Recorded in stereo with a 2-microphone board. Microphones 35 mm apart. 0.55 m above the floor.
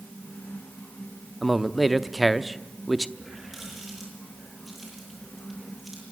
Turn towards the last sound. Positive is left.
turn(degrees=-10)  # may be behind; listen again after turning